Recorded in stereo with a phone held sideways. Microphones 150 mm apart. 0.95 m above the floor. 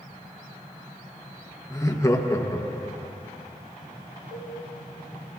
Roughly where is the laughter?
Left.